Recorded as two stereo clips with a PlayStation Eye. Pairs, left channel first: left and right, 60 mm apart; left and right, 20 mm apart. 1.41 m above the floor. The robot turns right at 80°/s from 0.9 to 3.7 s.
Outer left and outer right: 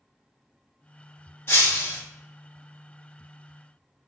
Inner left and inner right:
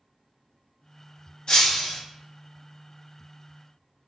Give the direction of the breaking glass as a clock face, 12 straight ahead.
9 o'clock.